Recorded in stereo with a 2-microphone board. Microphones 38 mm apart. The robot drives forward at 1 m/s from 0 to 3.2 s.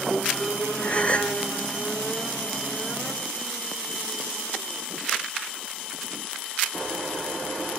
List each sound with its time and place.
0.8 s a gasp: 35° left (ahead or behind)